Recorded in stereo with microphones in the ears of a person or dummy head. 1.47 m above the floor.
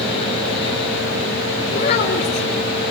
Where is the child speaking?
35° left (ahead or behind), 4.5 m.